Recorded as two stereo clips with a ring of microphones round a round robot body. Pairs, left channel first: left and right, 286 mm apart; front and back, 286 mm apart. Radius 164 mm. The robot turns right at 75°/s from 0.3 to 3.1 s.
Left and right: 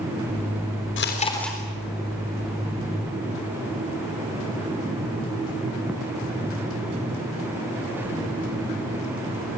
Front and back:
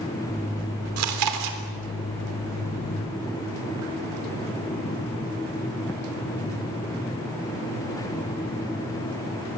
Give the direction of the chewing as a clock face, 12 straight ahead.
7 o'clock.